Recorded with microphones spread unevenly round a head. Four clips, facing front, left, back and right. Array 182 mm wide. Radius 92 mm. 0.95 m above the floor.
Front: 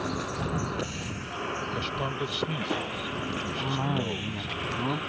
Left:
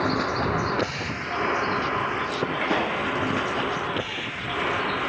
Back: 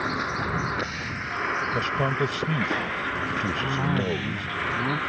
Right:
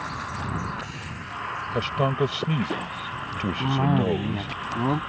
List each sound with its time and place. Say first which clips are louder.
0.0 s a vehicle: left 8 dB, back 4 dB; 90° left; by 5.1 s 95° left
1.7 s a man speaking: right 1 dB, back 6 dB; 115° right
3.6 s a cough: right 4 dB, back 1 dB; 90° right